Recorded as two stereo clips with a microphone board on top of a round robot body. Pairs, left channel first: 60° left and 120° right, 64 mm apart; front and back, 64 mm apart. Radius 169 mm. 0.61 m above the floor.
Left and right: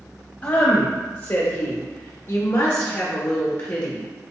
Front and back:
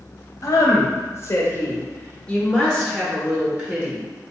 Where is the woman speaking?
5° right, 1.7 m; by 4.0 s 125° left, 1.8 m.